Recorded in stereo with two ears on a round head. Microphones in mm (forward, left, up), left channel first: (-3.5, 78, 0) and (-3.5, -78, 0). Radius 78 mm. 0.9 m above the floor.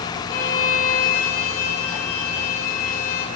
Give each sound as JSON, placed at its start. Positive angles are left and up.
{"t": 0.3, "sound": "a violin", "side_deg": 55, "distance_m": 2.5}